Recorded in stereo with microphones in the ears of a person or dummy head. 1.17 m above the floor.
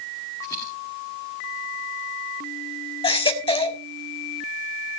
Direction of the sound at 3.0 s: 25° left (ahead or behind).